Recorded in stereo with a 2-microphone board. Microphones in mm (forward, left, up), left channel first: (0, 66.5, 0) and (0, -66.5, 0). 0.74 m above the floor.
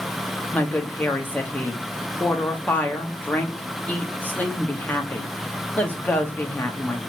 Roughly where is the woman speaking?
Centre.